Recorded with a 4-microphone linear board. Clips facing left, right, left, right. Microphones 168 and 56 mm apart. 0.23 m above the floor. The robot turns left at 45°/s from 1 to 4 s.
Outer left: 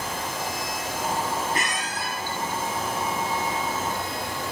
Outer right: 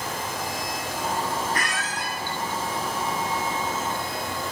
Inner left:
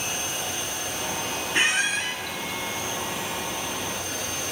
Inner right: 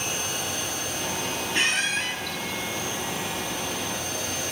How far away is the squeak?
About 1.1 m.